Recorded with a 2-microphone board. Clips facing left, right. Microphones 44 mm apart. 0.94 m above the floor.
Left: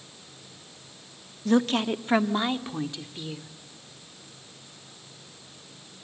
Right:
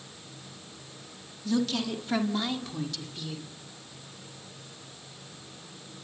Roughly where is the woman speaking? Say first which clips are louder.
Left 5 dB; left.